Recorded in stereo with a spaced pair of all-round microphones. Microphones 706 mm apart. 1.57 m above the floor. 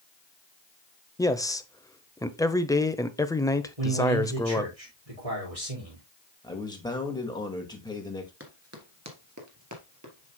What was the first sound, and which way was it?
A man speaking, 5° left (ahead or behind).